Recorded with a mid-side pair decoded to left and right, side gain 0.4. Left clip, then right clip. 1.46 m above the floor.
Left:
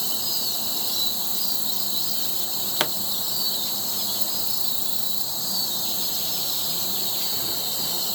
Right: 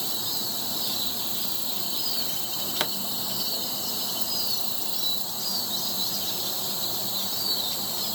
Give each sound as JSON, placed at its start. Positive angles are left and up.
{"t": 0.0, "sound": "an insect", "azimuth_deg": 35}
{"t": 2.8, "sound": "a pop", "azimuth_deg": 35}